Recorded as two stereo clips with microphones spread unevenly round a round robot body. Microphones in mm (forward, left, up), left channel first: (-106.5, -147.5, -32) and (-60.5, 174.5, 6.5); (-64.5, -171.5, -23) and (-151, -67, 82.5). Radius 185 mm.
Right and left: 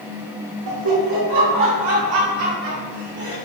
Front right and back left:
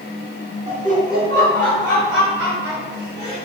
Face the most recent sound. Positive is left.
turn(degrees=95)